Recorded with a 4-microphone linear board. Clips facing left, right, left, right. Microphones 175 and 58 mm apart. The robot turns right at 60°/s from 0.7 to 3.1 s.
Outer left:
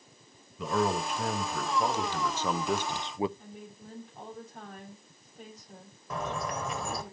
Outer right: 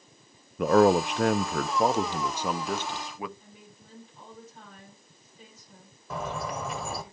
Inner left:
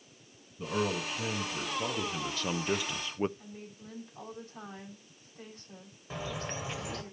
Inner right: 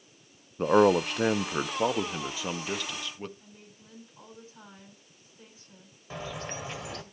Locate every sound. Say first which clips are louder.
0.6 s a man speaking: outer right 9 dB, inner right 12 dB; 115° right, 0.5 m; by 3.3 s 30° left, 0.5 m
3.4 s a woman speaking: outer left 6 dB, inner left 6 dB; 70° left (ahead or behind), 7.5 m
6.1 s a bird: outer right 1 dB, even; centre (ahead or behind), 1.7 m